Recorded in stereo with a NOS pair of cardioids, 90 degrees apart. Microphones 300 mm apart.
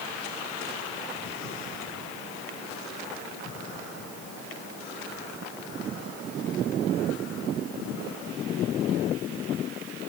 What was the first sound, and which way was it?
Only background noise.